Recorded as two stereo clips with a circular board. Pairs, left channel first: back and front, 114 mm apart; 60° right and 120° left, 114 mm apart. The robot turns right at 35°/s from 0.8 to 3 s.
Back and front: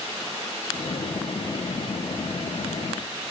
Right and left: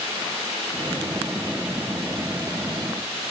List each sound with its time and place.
Only background noise.